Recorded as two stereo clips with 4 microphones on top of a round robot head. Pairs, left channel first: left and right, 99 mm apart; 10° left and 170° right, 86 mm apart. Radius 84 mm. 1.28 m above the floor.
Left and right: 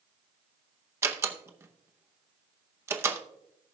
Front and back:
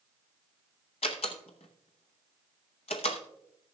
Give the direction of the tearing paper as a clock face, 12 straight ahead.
No tearing paper in this recording.